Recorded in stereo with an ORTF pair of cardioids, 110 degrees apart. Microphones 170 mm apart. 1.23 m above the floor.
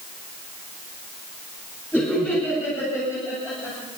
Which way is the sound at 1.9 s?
10° left.